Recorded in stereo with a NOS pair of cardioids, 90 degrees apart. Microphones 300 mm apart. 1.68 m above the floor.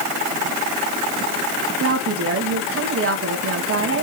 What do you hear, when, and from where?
1.8 s a woman speaking: 45° right, 2.5 m